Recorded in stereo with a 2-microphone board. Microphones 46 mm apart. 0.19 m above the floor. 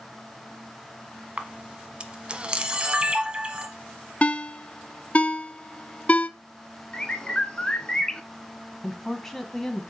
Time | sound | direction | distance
1.4 | a camera shutter | 25° right (ahead or behind) | 0.8 m
4.2 | a ringtone | 35° left (ahead or behind) | 0.5 m
6.9 | a bird | 20° left (ahead or behind) | 0.7 m
8.8 | a woman speaking | 10° left (ahead or behind) | 1.0 m